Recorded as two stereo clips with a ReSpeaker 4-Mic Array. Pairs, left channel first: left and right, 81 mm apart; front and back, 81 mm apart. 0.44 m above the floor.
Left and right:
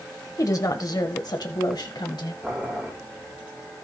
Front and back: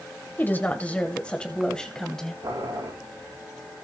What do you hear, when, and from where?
0.4 s a woman speaking: 60° left, 1.6 m; by 2.3 s 85° left, 2 m
2.4 s boiling: 165° right, 7 m